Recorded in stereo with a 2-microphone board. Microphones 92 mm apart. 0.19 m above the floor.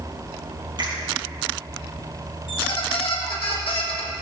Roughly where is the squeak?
Left.